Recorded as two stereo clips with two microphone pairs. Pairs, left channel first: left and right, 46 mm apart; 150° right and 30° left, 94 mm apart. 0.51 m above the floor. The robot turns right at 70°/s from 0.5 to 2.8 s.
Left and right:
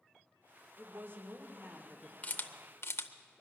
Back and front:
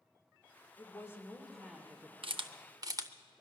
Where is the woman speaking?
115° right, 1.5 m; by 2.1 s 20° right, 1.5 m.